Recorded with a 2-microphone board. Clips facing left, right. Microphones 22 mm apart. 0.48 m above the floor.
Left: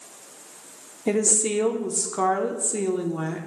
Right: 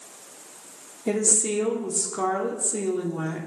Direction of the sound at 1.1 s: 20° left (ahead or behind).